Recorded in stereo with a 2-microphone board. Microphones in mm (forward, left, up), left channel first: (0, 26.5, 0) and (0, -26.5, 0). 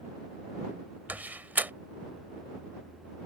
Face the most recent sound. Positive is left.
turn(degrees=-35)  # may be behind; listen again after turning